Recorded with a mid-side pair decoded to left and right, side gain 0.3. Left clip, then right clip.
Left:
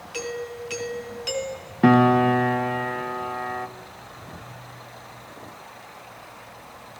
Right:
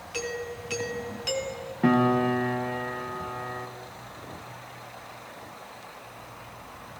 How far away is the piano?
About 0.7 m.